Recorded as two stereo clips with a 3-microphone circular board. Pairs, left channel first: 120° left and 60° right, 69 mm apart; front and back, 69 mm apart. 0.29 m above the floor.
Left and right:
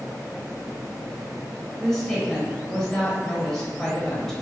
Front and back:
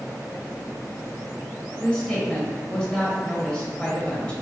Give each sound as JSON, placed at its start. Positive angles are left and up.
{"t": 1.8, "sound": "a woman speaking", "azimuth_deg": 50, "distance_m": 0.9}